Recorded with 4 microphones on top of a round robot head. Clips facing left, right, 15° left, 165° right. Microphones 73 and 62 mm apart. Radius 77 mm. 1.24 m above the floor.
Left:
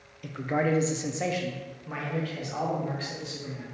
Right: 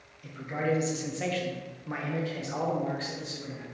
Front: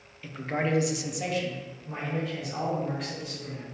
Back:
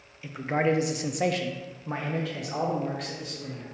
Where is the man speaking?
110° left, 0.7 m; by 3.6 s 140° right, 1.5 m.